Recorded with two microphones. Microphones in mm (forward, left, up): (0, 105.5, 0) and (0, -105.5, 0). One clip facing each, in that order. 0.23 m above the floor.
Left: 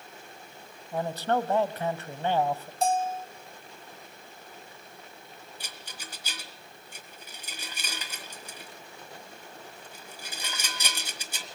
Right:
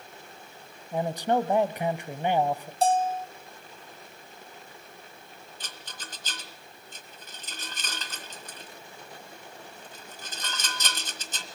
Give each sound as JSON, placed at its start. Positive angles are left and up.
{"t": 0.9, "sound": "a man speaking", "side_deg": -15, "distance_m": 1.0}
{"t": 2.8, "sound": "a bell", "side_deg": -35, "distance_m": 0.7}
{"t": 5.6, "sound": "a rattle", "side_deg": 10, "distance_m": 1.4}